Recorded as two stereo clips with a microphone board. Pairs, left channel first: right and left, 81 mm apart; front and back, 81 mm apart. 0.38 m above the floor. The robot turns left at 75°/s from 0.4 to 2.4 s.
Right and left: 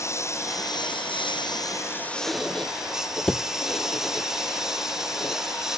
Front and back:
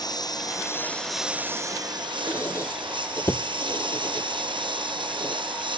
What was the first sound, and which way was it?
A lawn mower, 35° right.